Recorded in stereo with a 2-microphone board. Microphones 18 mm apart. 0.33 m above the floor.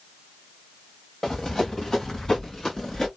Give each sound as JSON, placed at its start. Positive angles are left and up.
{"t": 1.2, "sound": "running footsteps", "side_deg": 35, "distance_m": 1.7}